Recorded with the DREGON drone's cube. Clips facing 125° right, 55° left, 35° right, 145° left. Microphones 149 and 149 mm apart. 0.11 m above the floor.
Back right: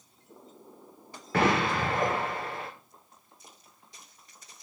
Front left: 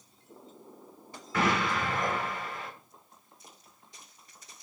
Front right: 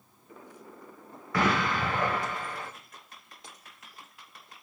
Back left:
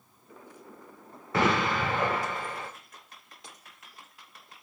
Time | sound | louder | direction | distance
1.3 | an explosion | back right 3 dB, back left 1 dB | 150° right | 1.7 m